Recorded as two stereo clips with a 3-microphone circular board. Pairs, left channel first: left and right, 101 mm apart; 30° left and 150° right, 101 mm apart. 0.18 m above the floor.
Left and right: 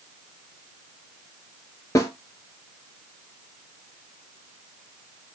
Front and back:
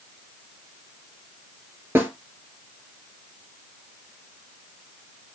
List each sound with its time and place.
1.9 s a snare drum: 145° left, 0.8 m